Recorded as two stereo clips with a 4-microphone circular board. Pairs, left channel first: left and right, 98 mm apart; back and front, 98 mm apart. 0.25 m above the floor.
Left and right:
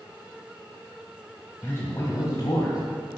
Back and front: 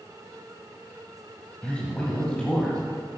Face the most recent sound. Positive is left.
turn(degrees=100)